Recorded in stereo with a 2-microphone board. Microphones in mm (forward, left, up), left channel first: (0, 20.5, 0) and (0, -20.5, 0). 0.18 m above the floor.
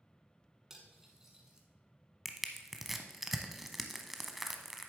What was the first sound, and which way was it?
Cutlery clinking, 10° right (ahead or behind).